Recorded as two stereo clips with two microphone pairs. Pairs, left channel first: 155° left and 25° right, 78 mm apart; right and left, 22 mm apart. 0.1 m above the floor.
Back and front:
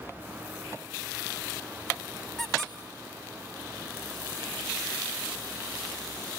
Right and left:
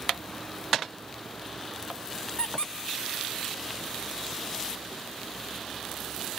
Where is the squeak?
120° right, 1.7 m.